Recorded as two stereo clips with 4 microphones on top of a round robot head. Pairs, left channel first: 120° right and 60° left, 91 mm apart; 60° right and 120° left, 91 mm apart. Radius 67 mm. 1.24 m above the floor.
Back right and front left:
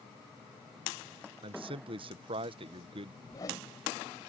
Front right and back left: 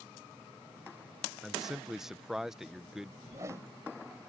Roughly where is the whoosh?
Behind.